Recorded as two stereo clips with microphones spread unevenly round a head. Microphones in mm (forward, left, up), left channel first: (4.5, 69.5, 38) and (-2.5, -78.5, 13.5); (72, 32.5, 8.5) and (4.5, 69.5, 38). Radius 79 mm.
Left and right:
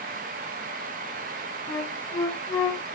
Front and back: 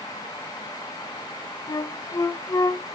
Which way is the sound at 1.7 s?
30° left.